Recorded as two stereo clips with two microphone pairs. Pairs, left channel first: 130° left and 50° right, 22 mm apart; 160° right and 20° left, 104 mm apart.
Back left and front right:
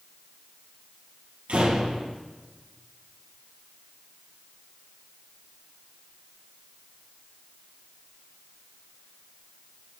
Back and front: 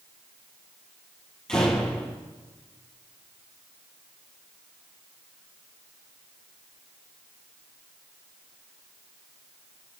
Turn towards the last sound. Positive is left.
turn(degrees=-75)